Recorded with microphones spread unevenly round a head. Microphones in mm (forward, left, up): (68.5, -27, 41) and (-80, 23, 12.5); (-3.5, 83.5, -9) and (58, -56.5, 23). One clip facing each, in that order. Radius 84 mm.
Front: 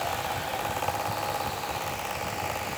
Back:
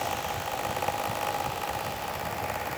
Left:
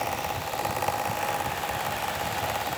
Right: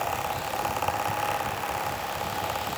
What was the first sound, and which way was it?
Only background noise.